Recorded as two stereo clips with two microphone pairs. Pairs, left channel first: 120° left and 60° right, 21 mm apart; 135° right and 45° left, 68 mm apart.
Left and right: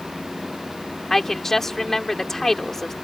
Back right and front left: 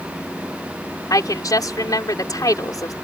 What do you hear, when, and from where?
1.1 s a woman speaking: 165° right